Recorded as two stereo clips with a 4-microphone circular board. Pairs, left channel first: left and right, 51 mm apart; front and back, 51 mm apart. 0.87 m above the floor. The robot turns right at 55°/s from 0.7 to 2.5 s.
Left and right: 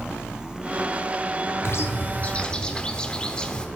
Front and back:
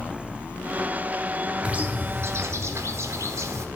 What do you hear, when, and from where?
1.6 s a bird: 115° left, 1.0 m; by 3.7 s 165° left, 1.0 m